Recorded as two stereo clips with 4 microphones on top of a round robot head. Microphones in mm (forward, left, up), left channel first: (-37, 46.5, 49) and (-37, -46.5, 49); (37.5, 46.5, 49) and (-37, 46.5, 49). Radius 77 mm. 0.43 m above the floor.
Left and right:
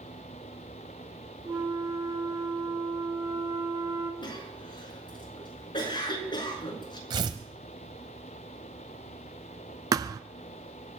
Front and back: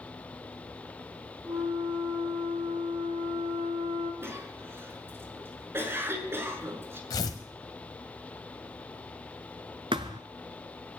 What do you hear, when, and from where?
1.4 s a flute: 135° right, 4.5 m
4.2 s a cough: 125° left, 6.5 m
7.1 s tearing paper: 45° right, 1.2 m
9.9 s a thud: 135° right, 0.6 m